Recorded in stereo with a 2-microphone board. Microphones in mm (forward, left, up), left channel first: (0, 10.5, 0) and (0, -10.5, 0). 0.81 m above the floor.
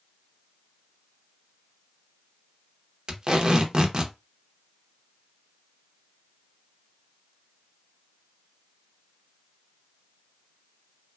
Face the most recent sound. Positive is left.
turn(degrees=-40)  # may be behind; listen again after turning